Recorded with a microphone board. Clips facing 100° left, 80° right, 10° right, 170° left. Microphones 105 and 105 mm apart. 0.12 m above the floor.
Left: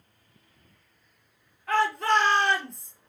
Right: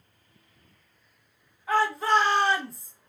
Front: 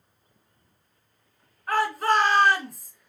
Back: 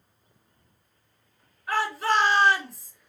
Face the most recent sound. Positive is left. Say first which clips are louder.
# even, front 2 dB
turn(degrees=-5)